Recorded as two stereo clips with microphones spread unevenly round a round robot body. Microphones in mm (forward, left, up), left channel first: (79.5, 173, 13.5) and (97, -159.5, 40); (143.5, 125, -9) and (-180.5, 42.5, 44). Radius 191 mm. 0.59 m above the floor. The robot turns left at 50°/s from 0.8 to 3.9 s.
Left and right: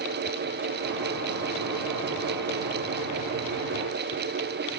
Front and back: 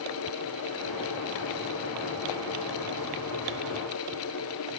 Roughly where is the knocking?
No knocking in this recording.